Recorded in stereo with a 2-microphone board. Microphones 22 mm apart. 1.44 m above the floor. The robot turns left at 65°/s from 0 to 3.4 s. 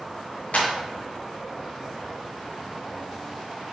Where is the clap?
80° left, 1.1 m; by 0.7 s 70° left (ahead or behind), 1.1 m.